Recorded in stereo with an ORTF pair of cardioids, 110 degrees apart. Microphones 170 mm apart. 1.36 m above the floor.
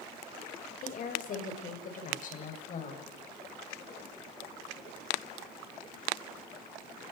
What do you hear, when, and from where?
0.8 s a woman speaking: 50° left, 5.5 m